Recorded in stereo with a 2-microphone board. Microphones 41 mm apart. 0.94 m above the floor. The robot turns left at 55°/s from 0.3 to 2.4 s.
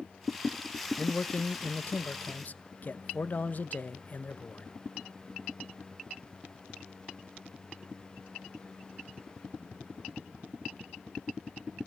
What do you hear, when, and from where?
1.0 s a man speaking: 150° left, 0.9 m; by 4.7 s 70° left, 0.9 m